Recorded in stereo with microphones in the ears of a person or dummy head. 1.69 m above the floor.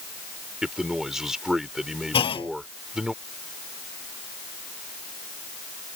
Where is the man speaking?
5° right (ahead or behind).